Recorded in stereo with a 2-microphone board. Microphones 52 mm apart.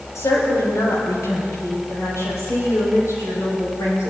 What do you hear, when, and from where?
0.1 s a woman speaking: 70° left (ahead or behind), 6.5 m